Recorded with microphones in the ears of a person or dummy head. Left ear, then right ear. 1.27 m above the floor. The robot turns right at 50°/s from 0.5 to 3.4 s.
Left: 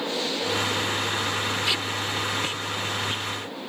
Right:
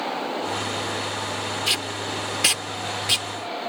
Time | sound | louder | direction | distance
1.7 | tape being pulled | even | 15° right (ahead or behind) | ?